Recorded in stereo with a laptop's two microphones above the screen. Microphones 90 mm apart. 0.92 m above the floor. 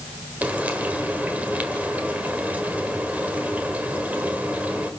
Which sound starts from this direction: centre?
Frying, at 0.4 s.